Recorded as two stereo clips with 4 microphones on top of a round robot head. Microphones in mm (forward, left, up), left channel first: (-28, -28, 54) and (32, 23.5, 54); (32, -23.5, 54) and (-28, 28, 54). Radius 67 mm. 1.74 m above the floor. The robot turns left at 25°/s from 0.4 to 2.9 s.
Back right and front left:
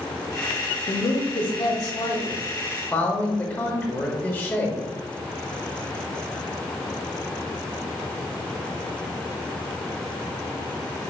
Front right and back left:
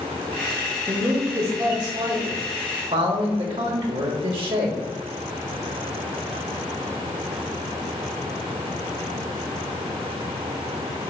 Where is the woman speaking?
155° right, 0.8 m; by 4.8 s 155° left, 0.8 m.